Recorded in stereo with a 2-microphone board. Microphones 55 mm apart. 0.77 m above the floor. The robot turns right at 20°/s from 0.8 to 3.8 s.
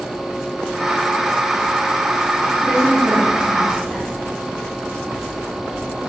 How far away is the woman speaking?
About 1.8 m.